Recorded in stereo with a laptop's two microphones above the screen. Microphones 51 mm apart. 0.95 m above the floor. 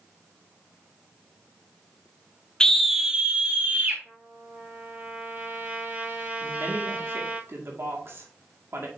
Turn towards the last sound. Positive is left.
turn(degrees=-55)  # may be behind; listen again after turning